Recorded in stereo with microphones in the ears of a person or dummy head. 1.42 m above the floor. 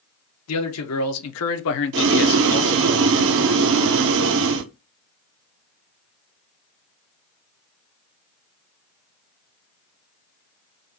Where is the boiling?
70° right (ahead or behind), 0.7 m.